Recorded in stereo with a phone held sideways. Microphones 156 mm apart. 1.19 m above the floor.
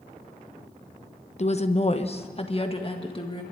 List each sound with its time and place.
1.4 s a woman speaking: 45° left (ahead or behind), 0.9 m; by 3.4 s 35° left (ahead or behind), 2.0 m